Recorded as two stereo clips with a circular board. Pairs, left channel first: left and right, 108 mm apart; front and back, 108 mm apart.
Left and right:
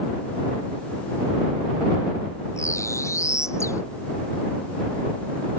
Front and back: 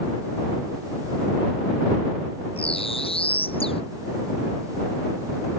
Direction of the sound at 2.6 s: 25° left.